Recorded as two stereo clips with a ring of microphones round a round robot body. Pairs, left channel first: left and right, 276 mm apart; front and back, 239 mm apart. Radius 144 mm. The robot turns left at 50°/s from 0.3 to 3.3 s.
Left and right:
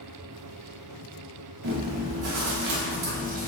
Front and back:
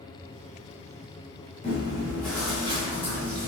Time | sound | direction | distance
1.6 | chewing | 55° right | 0.6 m